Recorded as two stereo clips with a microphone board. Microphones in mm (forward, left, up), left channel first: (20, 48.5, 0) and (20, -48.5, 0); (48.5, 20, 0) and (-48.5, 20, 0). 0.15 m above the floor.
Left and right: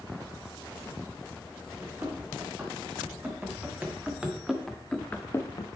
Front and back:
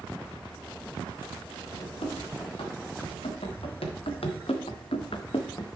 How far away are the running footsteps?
About 3 m.